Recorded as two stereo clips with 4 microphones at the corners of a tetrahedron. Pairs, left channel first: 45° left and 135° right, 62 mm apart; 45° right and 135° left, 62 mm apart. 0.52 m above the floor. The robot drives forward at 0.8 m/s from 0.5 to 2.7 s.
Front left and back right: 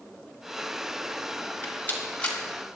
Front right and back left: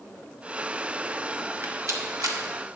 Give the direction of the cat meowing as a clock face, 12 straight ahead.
I don't hear a cat meowing.